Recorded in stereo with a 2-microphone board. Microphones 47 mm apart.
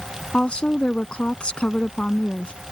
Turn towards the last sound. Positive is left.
turn(degrees=20)  # may be behind; listen again after turning